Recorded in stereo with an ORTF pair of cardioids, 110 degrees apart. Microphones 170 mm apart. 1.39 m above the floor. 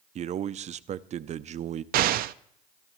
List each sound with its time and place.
0.1 s a man speaking: 40° right, 0.5 m
1.9 s an explosion: 65° right, 0.5 m